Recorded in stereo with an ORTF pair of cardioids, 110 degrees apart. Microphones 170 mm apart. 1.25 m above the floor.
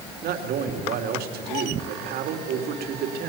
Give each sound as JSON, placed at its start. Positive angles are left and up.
{"t": 0.2, "sound": "a man speaking", "azimuth_deg": -70, "distance_m": 3.0}